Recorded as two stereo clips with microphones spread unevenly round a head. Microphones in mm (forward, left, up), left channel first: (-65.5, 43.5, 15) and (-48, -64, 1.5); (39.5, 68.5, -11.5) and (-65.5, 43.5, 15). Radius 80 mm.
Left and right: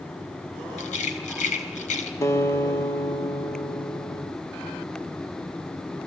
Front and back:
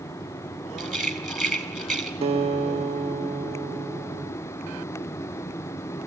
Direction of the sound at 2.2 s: 165° left.